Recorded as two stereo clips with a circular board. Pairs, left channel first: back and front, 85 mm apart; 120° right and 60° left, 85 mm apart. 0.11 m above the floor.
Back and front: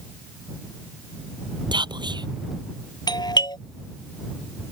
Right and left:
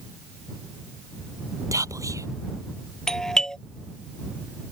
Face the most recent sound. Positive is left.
turn(degrees=160)